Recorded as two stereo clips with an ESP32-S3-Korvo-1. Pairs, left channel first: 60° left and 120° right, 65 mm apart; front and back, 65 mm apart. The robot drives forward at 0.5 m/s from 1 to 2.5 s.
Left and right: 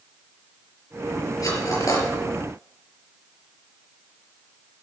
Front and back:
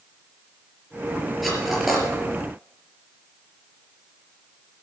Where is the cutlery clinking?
90° left, 4.5 m; by 2.1 s 95° left, 4.5 m.